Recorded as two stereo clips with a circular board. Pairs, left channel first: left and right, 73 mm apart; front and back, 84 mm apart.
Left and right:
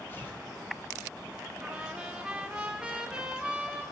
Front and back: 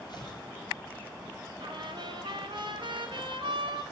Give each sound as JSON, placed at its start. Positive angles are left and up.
{"t": 0.1, "sound": "tearing paper", "azimuth_deg": 35, "distance_m": 5.5}
{"t": 1.6, "sound": "a trumpet", "azimuth_deg": -170, "distance_m": 4.5}